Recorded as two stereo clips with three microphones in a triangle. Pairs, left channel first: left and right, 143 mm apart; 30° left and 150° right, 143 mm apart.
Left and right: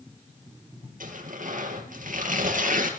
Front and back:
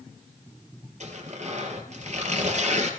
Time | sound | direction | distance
1.0 | tearing paper | 110° right | 4.5 m